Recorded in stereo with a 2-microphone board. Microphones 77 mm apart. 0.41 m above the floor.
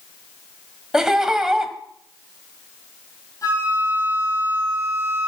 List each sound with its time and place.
0.9 s laughter: 10° right (ahead or behind), 2 m
3.4 s a flute: 50° left (ahead or behind), 7 m